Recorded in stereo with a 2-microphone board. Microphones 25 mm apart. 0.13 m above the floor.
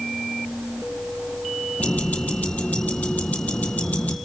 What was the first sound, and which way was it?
Ticking, 75° left (ahead or behind).